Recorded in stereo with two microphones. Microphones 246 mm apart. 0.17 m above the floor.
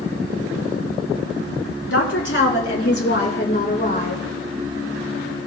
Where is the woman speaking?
55° left (ahead or behind), 1.9 m; by 4.2 s 30° left (ahead or behind), 1.3 m.